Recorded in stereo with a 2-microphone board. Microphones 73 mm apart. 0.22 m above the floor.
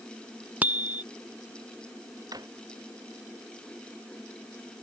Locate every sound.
0.6 s a bicycle bell: 20° right (ahead or behind)
2.3 s a drawer: 55° right (ahead or behind)